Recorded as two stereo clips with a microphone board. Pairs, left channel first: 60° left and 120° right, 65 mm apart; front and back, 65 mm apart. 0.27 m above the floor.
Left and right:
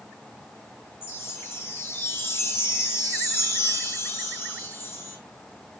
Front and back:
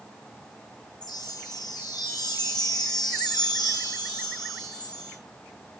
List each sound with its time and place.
1.0 s a chime: 5° left, 5 m